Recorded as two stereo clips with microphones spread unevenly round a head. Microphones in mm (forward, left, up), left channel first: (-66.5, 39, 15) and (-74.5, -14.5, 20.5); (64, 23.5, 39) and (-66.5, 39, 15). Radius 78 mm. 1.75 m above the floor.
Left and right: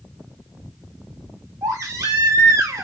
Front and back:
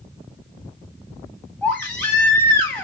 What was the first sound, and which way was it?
A baby crying, 80° right.